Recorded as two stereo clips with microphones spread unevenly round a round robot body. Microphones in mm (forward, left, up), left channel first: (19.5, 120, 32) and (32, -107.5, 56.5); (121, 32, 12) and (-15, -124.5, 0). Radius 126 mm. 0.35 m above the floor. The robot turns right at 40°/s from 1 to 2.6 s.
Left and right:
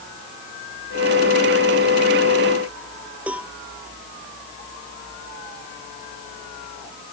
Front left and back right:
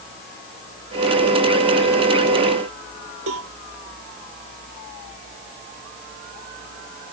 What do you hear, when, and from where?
3.3 s a cowbell: 170° right